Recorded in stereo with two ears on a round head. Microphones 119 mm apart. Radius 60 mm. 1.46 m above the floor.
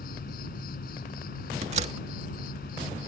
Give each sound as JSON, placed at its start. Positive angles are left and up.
{"t": 0.0, "sound": "an insect", "side_deg": 80}
{"t": 1.6, "sound": "a door slam", "side_deg": -55}